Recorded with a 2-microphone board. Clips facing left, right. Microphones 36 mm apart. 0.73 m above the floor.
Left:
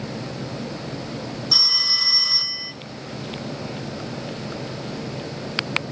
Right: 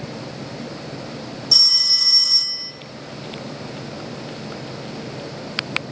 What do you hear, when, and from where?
1.5 s a phone ringing: 20° left (ahead or behind), 1.0 m